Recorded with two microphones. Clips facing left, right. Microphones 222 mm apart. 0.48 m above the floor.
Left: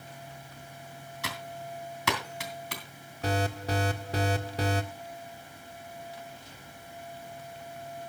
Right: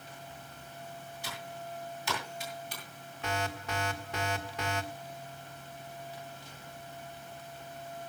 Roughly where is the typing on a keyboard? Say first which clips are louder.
Left 4 dB; left.